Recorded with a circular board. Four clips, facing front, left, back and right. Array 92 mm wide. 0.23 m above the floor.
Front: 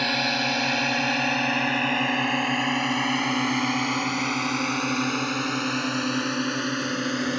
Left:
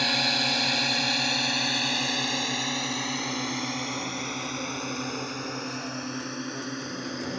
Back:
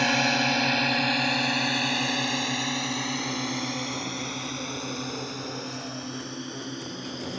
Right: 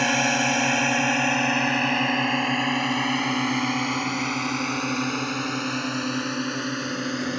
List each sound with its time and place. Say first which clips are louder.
0.0 s a drone: right 6 dB, back 2 dB; 105° right; by 7.4 s 30° right